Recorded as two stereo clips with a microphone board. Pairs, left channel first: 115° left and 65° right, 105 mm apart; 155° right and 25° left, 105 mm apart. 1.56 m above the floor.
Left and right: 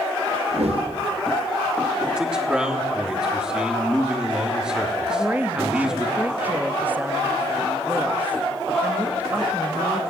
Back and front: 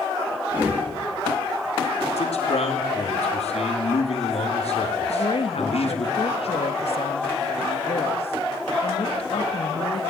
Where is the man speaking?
150° right, 3.5 m.